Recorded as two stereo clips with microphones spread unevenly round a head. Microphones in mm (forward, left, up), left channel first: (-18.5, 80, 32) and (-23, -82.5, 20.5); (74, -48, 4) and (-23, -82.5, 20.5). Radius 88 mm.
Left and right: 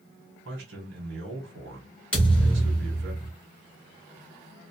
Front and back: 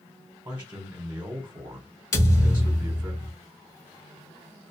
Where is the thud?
30° left, 1.3 m.